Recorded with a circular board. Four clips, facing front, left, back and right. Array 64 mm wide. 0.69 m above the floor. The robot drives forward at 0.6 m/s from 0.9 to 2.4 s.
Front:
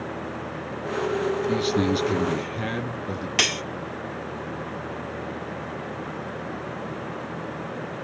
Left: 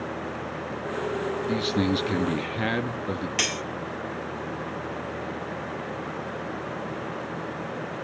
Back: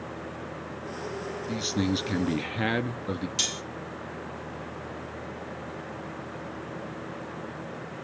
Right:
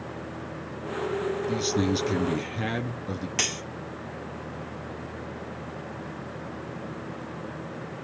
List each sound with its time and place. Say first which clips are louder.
1.5 s a man speaking: left 2 dB, front 3 dB; 55° left, 0.9 m; by 3.3 s 135° left, 0.9 m
3.4 s cutlery clinking: left 3 dB, front 10 dB; 5° left, 0.7 m